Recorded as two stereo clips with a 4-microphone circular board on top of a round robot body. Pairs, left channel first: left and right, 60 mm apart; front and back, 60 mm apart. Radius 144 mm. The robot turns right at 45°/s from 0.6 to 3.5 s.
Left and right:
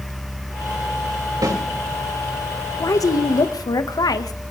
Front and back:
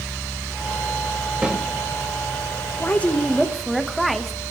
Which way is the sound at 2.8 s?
60° left.